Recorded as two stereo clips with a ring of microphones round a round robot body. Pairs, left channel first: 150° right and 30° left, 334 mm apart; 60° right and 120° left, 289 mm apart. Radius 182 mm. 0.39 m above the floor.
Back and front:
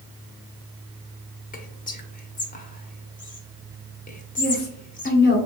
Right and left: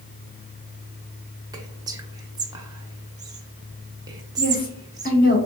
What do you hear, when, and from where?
1.5 s whispering: straight behind, 0.9 m
4.4 s a woman speaking: 105° right, 1.4 m